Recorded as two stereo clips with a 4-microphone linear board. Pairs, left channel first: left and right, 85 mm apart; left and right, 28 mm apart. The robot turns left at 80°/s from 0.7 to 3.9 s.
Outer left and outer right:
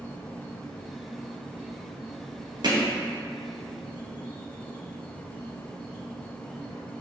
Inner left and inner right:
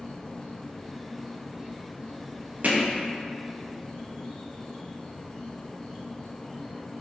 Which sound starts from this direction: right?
Hammering, at 2.6 s.